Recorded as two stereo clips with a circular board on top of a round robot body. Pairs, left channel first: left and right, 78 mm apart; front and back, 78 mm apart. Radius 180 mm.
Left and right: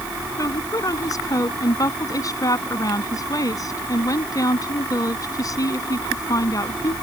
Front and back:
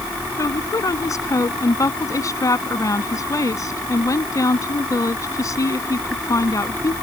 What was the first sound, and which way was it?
A woman speaking, 45° left.